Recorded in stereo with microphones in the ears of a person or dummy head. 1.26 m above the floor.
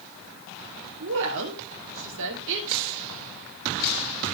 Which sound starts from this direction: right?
A woman speaking, at 1.0 s.